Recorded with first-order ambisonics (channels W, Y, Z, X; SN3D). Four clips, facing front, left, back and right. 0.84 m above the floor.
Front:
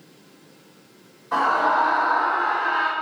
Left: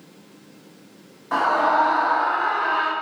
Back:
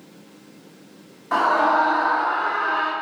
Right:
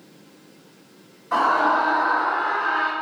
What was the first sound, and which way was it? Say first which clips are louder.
A scream: even, back 2 dB; 150° left.